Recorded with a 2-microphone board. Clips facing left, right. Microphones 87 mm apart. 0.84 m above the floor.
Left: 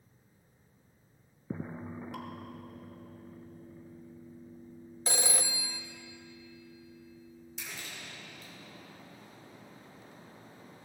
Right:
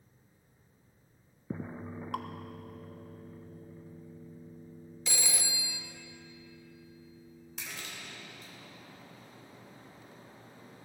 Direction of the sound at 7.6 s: 80° right.